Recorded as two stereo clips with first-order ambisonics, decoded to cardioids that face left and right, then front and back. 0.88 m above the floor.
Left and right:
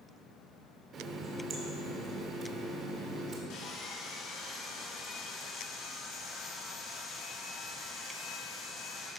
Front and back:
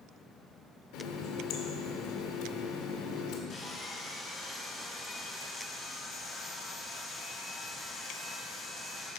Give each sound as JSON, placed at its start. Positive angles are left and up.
{"t": 0.9, "sound": "a running tap", "azimuth_deg": -30, "distance_m": 1.5}
{"t": 3.5, "sound": "sawing", "azimuth_deg": 55, "distance_m": 2.5}